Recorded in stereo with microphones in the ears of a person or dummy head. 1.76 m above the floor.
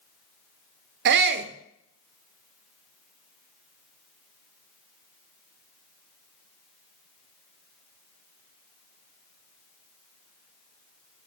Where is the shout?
55° right (ahead or behind), 0.6 m.